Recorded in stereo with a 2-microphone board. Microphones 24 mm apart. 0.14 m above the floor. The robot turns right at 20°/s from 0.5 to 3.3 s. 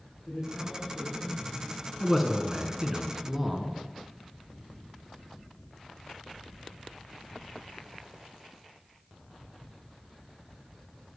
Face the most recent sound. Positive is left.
turn(degrees=-10)  # may be behind; listen again after turning